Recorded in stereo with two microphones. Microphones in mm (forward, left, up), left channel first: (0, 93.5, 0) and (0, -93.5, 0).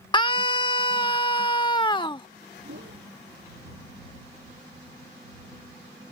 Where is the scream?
25° left (ahead or behind).